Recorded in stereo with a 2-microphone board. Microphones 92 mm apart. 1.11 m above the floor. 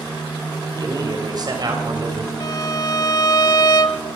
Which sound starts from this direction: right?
A man speaking, at 0.8 s.